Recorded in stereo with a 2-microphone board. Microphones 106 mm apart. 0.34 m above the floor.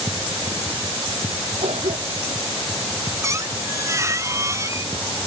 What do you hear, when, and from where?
1.6 s a cough: 80° right
3.2 s a squeak: 30° right (ahead or behind)